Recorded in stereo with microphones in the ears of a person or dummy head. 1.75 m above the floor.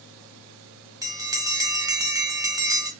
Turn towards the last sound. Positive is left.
turn(degrees=-20)  # may be behind; listen again after turning